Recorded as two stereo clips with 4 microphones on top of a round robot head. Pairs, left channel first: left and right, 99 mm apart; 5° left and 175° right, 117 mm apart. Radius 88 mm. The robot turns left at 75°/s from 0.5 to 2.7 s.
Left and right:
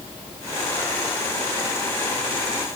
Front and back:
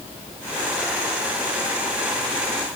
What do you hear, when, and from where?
Only background noise.